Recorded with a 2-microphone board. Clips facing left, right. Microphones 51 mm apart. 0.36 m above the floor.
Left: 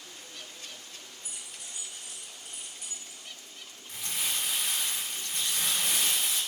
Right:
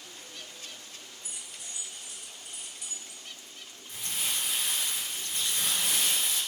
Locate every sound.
1.2 s keys jangling: 45° left (ahead or behind), 1.4 m; by 3.2 s 30° left (ahead or behind), 0.8 m
3.9 s crumpling: 65° left (ahead or behind), 1.8 m